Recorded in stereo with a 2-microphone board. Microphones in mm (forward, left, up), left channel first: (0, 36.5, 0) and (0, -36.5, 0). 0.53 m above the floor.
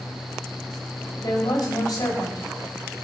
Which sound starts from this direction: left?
A woman speaking, at 1.2 s.